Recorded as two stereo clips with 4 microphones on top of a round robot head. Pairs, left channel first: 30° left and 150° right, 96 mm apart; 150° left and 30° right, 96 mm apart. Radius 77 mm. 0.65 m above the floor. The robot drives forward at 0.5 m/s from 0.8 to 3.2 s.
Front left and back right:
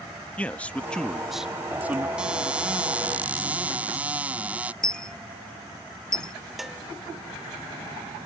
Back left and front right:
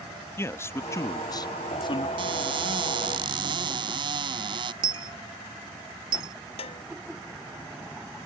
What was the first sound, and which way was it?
A man speaking, 100° left.